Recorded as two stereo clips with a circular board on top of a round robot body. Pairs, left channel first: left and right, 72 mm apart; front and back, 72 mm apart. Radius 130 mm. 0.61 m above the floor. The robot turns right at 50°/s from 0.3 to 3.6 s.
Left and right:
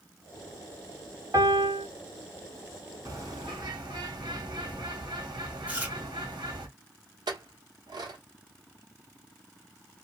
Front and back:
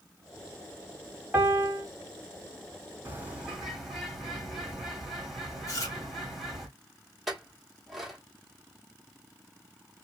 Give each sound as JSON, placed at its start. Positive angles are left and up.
{"t": 1.3, "sound": "a piano", "azimuth_deg": -125, "distance_m": 1.6}
{"t": 3.0, "sound": "a bird", "azimuth_deg": -120, "distance_m": 1.4}
{"t": 5.7, "sound": "chewing", "azimuth_deg": -25, "distance_m": 1.5}
{"t": 7.3, "sound": "a clink", "azimuth_deg": -95, "distance_m": 1.1}